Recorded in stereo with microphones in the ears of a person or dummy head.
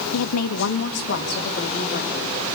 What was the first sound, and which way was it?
A woman speaking, 85° left.